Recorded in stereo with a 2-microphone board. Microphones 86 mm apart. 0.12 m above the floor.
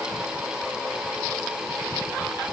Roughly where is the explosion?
I don't hear an explosion.